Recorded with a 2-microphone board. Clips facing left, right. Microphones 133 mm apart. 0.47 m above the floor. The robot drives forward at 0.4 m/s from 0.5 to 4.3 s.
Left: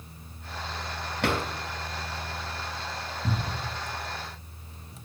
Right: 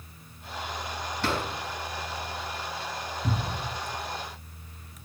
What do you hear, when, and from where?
1.2 s a drawer: 65° left (ahead or behind), 2.5 m
3.2 s a cupboard door: 15° right (ahead or behind), 1.4 m